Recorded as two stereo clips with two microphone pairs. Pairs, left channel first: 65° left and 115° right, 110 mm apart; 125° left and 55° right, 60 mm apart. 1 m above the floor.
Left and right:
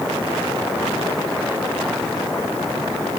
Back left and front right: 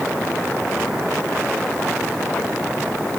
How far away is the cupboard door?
I don't hear a cupboard door.